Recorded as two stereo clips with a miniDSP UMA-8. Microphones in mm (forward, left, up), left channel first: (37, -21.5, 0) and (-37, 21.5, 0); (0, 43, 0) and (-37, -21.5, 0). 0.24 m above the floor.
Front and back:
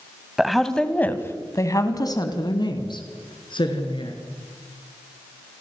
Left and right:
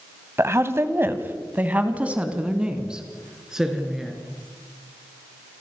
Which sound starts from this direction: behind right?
A woman speaking, at 0.4 s.